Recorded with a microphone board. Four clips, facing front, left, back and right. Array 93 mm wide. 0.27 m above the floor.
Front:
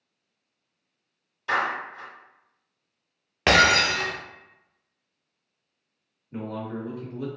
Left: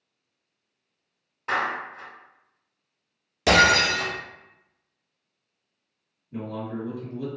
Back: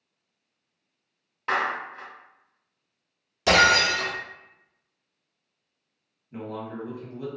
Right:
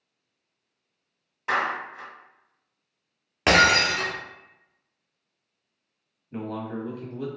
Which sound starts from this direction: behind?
A clap, at 1.5 s.